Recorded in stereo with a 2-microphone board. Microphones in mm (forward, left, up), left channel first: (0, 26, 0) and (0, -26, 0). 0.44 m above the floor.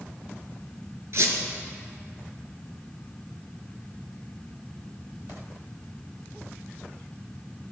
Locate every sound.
1.1 s a squeak: 60° right (ahead or behind), 1.7 m